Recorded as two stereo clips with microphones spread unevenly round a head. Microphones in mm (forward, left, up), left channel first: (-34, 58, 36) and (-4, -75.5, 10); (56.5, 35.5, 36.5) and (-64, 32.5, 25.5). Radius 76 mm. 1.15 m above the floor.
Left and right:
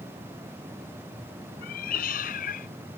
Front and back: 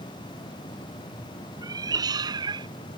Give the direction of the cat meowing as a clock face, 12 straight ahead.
8 o'clock.